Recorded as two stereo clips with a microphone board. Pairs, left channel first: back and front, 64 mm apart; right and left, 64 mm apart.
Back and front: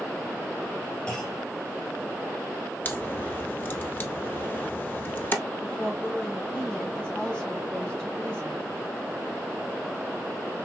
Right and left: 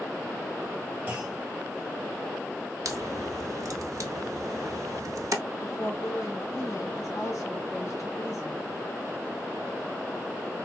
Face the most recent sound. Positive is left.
turn(degrees=-105)